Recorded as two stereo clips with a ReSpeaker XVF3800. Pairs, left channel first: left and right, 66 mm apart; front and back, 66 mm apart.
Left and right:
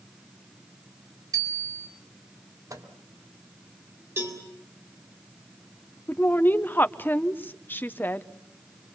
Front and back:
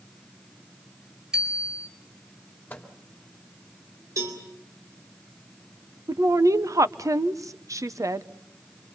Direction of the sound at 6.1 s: 150° left.